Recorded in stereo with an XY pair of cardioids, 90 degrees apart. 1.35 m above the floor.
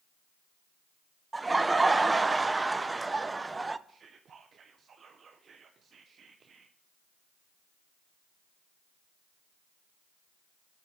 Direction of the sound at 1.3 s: 20° right.